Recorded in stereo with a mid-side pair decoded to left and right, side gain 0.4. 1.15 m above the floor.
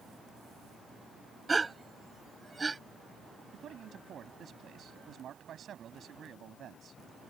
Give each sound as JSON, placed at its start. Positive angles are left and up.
{"t": 1.5, "sound": "a gasp", "azimuth_deg": -25}
{"t": 3.5, "sound": "a man speaking", "azimuth_deg": -60}